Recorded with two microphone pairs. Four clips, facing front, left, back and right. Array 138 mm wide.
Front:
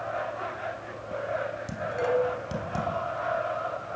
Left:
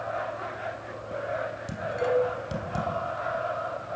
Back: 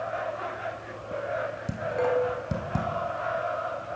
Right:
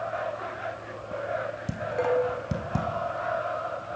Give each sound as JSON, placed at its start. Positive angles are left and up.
{"t": 1.7, "sound": "dishes clattering", "azimuth_deg": -115, "distance_m": 4.5}